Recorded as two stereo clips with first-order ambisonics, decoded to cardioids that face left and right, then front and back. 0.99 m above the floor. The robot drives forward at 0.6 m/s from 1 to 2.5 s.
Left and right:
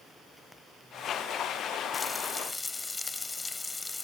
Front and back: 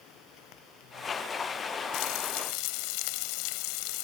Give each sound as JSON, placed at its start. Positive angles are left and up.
{"t": 1.9, "sound": "frying", "azimuth_deg": 10}